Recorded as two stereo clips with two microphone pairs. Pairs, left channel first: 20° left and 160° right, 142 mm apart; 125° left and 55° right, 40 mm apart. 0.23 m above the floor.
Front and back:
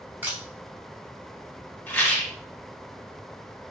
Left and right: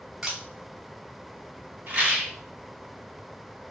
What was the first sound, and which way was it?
A camera shutter, 100° right.